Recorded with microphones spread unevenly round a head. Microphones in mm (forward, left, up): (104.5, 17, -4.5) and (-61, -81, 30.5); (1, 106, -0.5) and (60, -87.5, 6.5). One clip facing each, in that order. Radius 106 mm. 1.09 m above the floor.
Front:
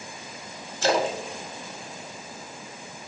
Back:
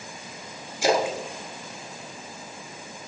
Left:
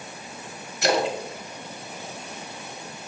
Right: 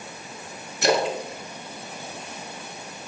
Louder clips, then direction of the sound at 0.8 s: Back 1 dB, right 1 dB; 70° right.